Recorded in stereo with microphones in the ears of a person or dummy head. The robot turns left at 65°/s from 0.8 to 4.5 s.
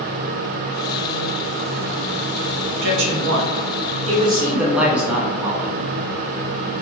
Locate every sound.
2.8 s a man speaking: 60° right, 1.2 m; by 5.7 s 175° right, 1.2 m